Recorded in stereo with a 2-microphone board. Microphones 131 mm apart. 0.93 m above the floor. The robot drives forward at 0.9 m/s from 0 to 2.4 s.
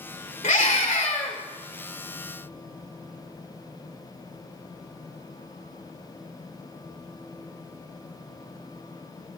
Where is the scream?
75° left (ahead or behind), 3.5 m; by 1.4 s 70° left (ahead or behind), 3.5 m.